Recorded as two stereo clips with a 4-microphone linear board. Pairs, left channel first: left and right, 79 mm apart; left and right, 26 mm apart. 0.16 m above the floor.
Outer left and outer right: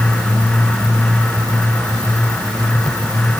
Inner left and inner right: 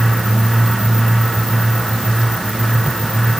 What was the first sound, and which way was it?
Only background noise.